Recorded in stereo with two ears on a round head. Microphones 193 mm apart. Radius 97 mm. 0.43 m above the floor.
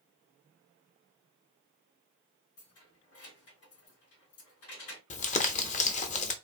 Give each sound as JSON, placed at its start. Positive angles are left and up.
{"t": 2.6, "sound": "keys jangling", "side_deg": 75, "distance_m": 2.5}
{"t": 5.1, "sound": "crumpling", "side_deg": 35, "distance_m": 0.7}